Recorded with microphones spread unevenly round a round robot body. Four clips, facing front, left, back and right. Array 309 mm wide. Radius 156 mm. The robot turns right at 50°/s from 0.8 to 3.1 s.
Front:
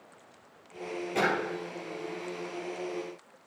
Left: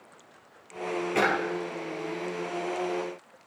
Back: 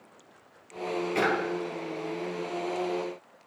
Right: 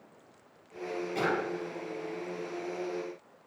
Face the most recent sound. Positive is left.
turn(degrees=-175)